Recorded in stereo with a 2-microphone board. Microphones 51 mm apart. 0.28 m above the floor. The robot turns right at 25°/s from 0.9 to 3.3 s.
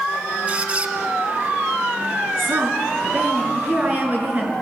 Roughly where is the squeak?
Right.